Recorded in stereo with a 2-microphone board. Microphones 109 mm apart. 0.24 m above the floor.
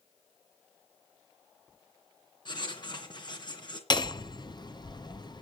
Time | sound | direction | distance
2.5 | writing | 40° left (ahead or behind) | 3.5 m
3.9 | hammering | 40° left (ahead or behind) | 1.1 m